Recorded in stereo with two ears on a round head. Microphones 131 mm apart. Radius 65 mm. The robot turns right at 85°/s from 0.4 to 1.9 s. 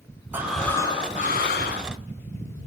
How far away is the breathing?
About 4 m.